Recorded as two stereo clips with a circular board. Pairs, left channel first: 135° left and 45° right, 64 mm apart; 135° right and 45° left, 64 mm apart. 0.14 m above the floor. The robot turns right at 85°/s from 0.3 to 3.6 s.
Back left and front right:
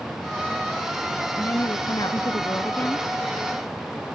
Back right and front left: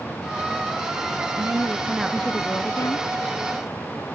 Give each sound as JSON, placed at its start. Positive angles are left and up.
{"t": 1.4, "sound": "a woman speaking", "azimuth_deg": 70}